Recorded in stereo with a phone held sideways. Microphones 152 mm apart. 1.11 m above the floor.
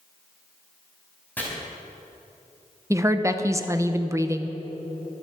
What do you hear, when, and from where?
1.4 s chopping: 10° left (ahead or behind), 4 m
2.9 s a woman speaking: 20° right (ahead or behind), 0.9 m